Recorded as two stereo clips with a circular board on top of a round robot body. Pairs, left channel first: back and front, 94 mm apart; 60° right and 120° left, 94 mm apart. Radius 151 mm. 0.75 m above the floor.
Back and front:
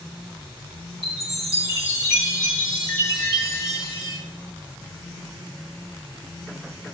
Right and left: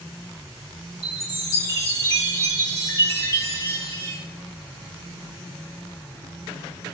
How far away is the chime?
About 5 m.